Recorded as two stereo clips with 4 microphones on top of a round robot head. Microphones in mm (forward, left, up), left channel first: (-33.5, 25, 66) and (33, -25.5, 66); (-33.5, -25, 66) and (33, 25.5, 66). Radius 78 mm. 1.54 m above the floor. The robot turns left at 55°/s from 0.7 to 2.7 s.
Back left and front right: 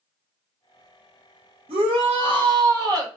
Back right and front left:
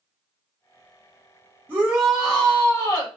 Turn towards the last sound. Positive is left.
turn(degrees=-85)